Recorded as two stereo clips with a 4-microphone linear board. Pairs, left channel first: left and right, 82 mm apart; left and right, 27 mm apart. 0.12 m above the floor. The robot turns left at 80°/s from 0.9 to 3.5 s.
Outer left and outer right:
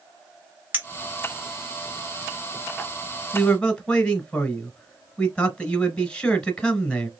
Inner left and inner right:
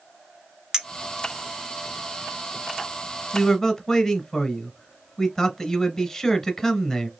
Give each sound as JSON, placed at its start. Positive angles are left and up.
{"t": 0.7, "sound": "a clink", "side_deg": -20, "distance_m": 0.8}
{"t": 3.3, "sound": "a man speaking", "side_deg": 10, "distance_m": 1.1}